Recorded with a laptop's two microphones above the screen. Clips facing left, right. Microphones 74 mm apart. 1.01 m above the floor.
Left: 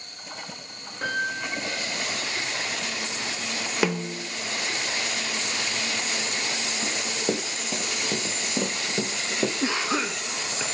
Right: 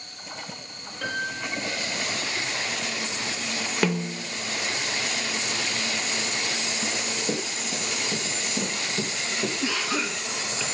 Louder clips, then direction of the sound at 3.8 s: Even; 5° left (ahead or behind).